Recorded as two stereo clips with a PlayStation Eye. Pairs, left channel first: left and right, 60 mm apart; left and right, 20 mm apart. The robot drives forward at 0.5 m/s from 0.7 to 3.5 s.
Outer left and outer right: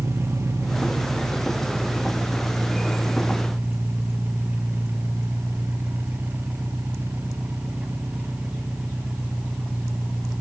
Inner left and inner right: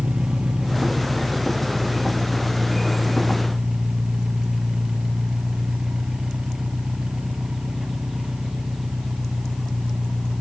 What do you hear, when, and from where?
0.0 s an engine running: 50° right (ahead or behind), 0.9 m; by 10.4 s 20° right (ahead or behind), 2 m